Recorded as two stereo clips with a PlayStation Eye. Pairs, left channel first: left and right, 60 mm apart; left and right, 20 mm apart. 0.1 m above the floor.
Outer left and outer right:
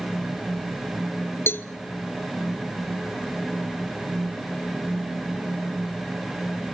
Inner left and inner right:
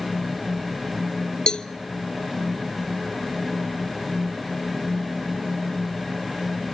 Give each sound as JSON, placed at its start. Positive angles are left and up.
{"t": 1.5, "sound": "a cowbell", "side_deg": 40, "distance_m": 0.7}